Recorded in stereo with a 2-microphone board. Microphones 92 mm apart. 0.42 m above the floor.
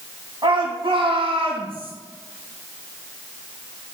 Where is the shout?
65° right (ahead or behind), 2.5 m; by 1.9 s 75° right (ahead or behind), 3 m.